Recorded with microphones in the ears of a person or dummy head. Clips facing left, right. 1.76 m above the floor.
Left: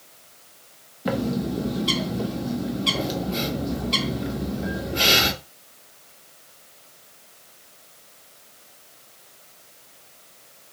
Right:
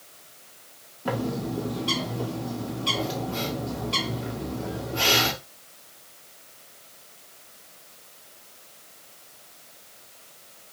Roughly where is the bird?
Left.